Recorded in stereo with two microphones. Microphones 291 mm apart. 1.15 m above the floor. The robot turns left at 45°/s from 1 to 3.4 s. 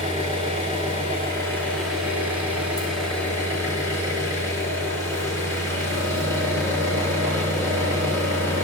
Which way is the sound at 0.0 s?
20° right.